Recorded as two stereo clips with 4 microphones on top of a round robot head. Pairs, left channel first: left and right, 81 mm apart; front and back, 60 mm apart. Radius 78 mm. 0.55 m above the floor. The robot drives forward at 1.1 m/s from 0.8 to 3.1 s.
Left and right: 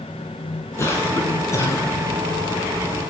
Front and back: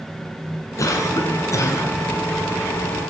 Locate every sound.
0.8 s a cough: 30° left, 6 m; by 1.9 s 35° left, 5 m